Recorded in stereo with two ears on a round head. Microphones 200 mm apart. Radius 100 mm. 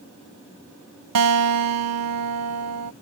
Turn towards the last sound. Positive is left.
turn(degrees=-80)